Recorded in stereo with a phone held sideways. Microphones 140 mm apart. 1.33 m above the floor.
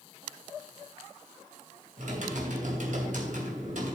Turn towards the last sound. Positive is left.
turn(degrees=-65)  # may be behind; listen again after turning